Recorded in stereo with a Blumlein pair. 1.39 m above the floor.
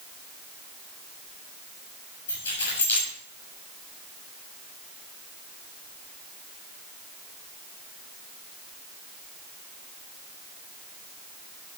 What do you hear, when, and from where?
2.3 s keys jangling: 65° left, 7 m